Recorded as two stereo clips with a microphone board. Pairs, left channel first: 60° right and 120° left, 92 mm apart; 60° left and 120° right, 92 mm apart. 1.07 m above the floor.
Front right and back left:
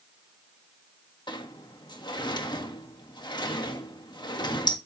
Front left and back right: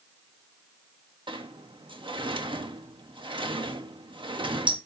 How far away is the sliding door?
About 1.5 m.